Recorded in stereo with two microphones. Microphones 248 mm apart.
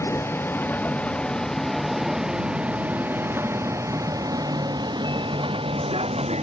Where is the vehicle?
10° left (ahead or behind); by 6.4 s 25° right (ahead or behind).